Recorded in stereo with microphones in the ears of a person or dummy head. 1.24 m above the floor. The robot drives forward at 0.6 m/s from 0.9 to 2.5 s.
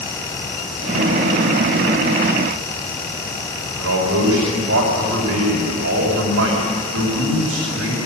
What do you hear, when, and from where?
3.8 s a man speaking: 80° right, 5.5 m